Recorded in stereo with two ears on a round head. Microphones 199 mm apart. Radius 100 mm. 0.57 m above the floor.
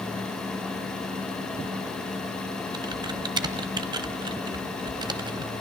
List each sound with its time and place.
2.7 s typing on a keyboard: 20° right (ahead or behind), 1.2 m